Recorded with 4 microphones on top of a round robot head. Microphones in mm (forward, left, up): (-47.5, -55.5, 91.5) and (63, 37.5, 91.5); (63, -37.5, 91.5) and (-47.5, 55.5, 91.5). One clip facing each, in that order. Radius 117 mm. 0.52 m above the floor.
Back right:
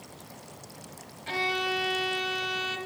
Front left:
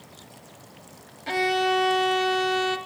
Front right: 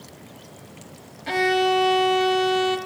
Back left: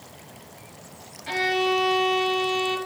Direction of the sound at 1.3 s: Straight ahead.